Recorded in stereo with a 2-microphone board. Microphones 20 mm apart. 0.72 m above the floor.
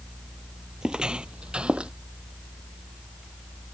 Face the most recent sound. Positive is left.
turn(degrees=-60)  # may be behind; listen again after turning